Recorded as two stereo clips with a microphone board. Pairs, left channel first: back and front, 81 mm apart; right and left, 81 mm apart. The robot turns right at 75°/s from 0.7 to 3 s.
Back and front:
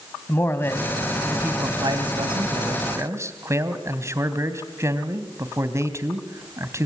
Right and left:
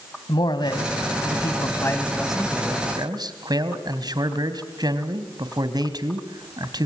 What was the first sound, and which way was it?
A man speaking, 120° right.